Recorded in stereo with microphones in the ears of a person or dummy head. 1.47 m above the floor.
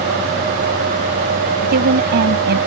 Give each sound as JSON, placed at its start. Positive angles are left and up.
{"t": 1.6, "sound": "a woman speaking", "side_deg": -55}